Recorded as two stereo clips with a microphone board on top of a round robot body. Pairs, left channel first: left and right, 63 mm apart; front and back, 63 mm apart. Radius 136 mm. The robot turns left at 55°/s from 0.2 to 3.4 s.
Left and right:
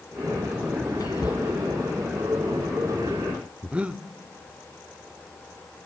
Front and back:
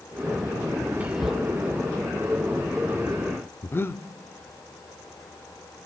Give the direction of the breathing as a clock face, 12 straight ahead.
1 o'clock.